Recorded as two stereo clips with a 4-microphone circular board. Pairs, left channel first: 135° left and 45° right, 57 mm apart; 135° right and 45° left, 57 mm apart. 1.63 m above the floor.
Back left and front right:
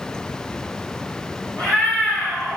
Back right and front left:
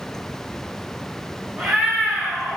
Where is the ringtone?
I don't hear a ringtone.